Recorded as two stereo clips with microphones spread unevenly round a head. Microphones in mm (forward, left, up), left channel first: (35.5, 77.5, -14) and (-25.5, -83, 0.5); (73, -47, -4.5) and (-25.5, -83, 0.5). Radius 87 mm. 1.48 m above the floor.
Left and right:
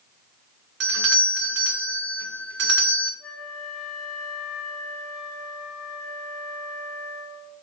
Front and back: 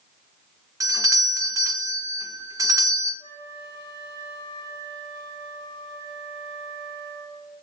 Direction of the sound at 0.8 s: 105° right.